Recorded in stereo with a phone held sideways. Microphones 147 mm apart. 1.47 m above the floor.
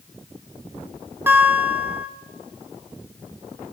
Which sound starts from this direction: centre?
A guitar, at 1.3 s.